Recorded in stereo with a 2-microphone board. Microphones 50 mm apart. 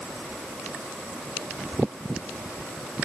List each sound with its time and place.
Only background noise.